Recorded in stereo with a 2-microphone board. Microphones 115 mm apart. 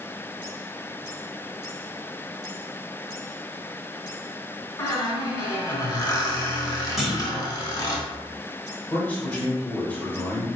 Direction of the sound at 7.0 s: Centre (ahead or behind).